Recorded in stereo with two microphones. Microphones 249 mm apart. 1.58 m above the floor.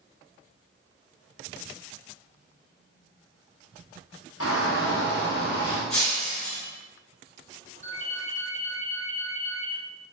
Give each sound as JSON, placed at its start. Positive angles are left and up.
{"t": 4.4, "sound": "a shout", "side_deg": 65, "distance_m": 0.8}
{"t": 5.9, "sound": "breaking glass", "side_deg": 5, "distance_m": 1.6}
{"t": 7.8, "sound": "a ringtone", "side_deg": 30, "distance_m": 1.8}